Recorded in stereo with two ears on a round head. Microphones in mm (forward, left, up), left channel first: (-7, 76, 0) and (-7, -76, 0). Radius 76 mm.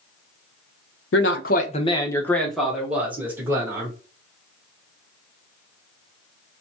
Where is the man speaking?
75° left (ahead or behind), 0.7 m; by 3.9 s 20° right (ahead or behind), 1.9 m.